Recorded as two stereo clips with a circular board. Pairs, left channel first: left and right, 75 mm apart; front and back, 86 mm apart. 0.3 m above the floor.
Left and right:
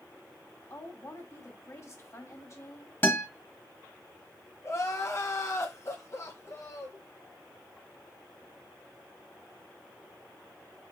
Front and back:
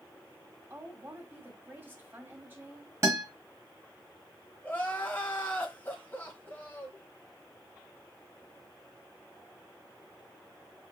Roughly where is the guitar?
Behind left.